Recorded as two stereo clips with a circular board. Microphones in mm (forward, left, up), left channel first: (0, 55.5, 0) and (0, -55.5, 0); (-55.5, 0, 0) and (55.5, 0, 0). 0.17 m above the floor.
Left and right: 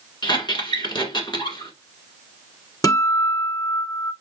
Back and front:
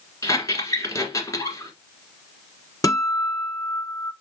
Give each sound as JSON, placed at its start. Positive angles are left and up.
{"t": 0.2, "sound": "a squeak", "azimuth_deg": 125, "distance_m": 1.6}
{"t": 2.8, "sound": "a guitar", "azimuth_deg": 135, "distance_m": 0.8}